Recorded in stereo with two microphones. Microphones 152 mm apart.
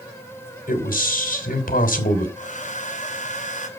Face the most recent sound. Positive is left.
turn(degrees=55)  # may be behind; listen again after turning